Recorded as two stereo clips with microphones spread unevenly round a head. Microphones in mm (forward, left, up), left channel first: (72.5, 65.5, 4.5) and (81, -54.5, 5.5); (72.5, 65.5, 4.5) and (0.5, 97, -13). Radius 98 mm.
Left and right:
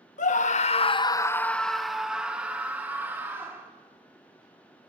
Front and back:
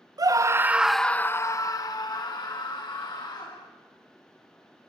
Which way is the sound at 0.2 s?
115° left.